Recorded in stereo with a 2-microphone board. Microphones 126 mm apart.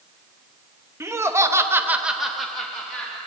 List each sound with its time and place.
1.0 s laughter: 20° right (ahead or behind), 1.3 m; by 3.2 s 10° left (ahead or behind), 1.9 m